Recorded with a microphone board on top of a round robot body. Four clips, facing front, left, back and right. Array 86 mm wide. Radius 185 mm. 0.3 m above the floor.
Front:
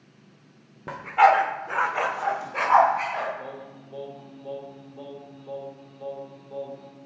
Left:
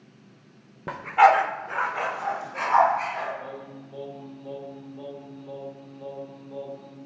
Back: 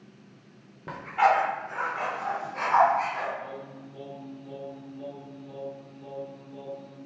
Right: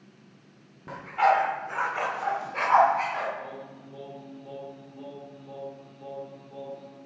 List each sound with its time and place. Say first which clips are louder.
0.9 s a dog barking: left 5 dB, front 5 dB; 75° left, 0.6 m; by 3.3 s 30° right, 1.0 m
3.4 s singing: left 2 dB, even; 20° left, 1.3 m